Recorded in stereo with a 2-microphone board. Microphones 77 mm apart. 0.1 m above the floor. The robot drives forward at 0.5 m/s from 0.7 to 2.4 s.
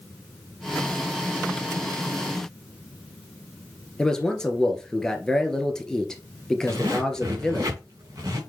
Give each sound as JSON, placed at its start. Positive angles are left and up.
{"t": 4.0, "sound": "a man speaking", "side_deg": 10, "distance_m": 1.5}
{"t": 6.7, "sound": "a zipper", "side_deg": -45, "distance_m": 3.0}